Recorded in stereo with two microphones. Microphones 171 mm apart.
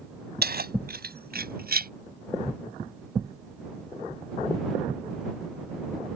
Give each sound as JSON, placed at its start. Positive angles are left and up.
{"t": 0.4, "sound": "keys jangling", "side_deg": -65}